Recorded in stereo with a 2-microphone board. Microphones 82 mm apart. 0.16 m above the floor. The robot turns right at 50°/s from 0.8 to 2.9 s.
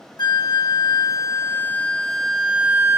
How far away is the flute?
About 0.8 m.